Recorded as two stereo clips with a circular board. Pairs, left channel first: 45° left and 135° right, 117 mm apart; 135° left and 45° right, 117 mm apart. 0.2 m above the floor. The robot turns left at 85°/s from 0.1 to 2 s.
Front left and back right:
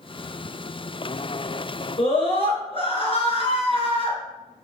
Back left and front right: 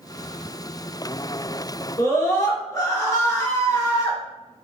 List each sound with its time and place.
2.0 s a scream: 75° left, 3 m